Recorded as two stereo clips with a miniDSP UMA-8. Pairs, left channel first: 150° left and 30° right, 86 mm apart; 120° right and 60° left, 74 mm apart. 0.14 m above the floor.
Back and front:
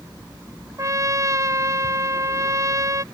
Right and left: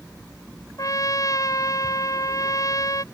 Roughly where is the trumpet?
Right.